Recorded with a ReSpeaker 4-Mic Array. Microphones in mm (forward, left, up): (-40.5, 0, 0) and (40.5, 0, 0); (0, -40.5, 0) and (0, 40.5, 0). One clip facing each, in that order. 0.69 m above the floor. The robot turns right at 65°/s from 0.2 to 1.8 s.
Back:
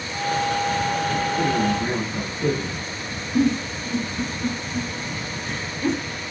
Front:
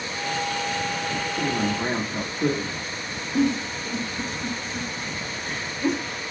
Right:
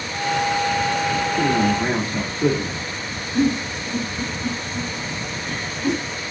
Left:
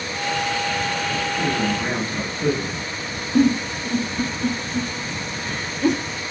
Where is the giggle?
85° left, 0.9 m.